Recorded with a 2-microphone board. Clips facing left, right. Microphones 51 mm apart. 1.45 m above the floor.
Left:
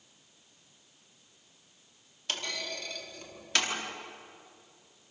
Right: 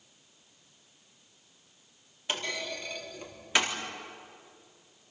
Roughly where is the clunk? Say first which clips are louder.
Right 2 dB; centre.